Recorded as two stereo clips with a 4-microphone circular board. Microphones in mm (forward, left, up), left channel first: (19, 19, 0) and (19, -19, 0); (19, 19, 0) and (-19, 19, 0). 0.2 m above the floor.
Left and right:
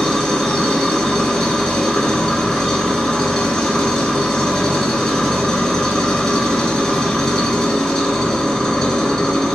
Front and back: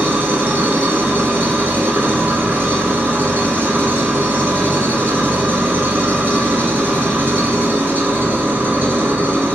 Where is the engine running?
165° left, 0.8 m.